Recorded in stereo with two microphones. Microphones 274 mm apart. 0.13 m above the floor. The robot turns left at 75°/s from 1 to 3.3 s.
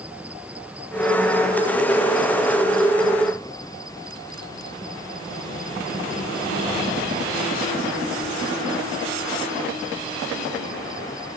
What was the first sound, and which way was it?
An insect, 175° right.